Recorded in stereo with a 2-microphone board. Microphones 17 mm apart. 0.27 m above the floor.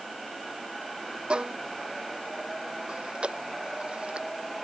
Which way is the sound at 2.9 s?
80° right.